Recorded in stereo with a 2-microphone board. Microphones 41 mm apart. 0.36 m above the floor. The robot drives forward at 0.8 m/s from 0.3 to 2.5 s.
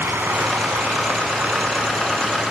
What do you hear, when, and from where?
0.0 s running water: 65° right (ahead or behind), 2 m; by 2.5 s 35° right (ahead or behind), 3.5 m